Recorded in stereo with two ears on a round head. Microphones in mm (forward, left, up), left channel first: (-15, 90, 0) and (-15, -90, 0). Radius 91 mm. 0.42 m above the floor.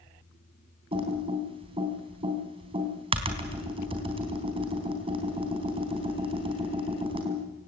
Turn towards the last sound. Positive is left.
turn(degrees=-25)  # may be behind; listen again after turning